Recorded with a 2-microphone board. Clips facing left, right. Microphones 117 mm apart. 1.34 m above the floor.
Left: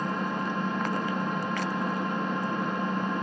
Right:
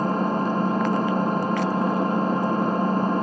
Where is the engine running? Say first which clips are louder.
Right 7 dB; 40° right (ahead or behind), 0.9 m.